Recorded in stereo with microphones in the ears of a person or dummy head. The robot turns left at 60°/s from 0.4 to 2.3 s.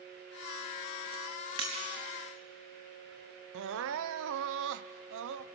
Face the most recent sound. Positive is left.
turn(degrees=-65)  # may be behind; listen again after turning